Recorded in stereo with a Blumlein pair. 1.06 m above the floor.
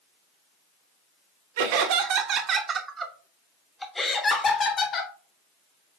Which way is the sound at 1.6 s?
50° right.